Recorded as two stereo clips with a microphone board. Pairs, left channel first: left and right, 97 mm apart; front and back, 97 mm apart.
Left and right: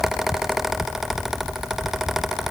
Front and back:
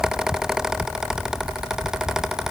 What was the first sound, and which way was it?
Only background noise.